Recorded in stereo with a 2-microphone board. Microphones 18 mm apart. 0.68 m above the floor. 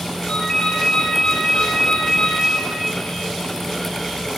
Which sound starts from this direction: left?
A ringtone, at 0.3 s.